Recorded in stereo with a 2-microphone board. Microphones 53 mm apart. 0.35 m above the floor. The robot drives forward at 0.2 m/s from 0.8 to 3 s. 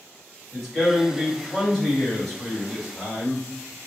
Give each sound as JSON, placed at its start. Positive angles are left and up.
{"t": 0.5, "sound": "a man speaking", "side_deg": 5, "distance_m": 2.0}